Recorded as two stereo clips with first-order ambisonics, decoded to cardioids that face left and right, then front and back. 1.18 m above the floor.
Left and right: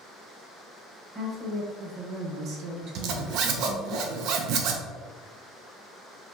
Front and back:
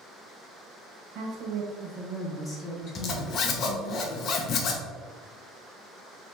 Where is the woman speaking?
160° right, 1.1 m; by 4.0 s 30° right, 1.5 m.